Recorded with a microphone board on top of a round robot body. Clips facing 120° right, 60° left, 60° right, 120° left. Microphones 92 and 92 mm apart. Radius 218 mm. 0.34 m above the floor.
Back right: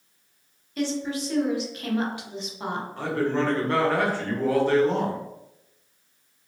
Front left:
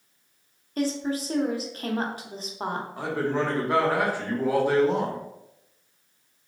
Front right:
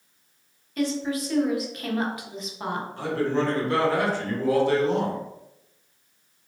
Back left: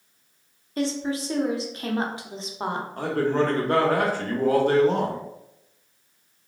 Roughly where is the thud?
I don't hear a thud.